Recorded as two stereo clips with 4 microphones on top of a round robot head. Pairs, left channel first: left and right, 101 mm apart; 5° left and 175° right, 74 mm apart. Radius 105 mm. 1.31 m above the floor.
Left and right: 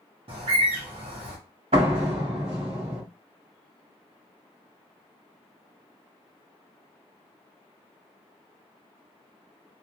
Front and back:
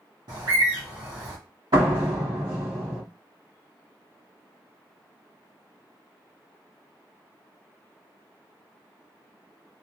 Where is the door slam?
130° right, 1.2 m.